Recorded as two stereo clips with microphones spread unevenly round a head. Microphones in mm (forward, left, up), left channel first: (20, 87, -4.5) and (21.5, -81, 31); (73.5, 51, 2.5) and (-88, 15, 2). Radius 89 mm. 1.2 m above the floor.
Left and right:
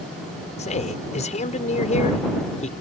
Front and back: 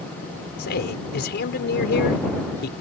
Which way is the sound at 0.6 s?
40° left.